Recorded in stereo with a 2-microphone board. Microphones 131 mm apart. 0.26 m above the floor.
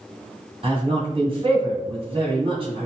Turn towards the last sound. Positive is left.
turn(degrees=-45)  # may be behind; listen again after turning